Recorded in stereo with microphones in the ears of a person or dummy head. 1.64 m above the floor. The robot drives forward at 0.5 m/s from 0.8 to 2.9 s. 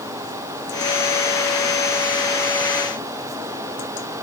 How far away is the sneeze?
No sneeze in this recording.